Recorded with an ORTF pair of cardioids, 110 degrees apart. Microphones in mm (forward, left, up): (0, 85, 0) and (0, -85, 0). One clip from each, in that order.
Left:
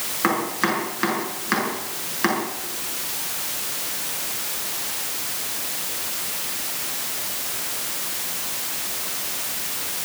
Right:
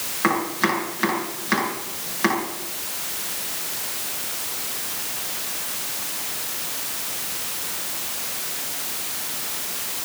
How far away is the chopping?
About 7 m.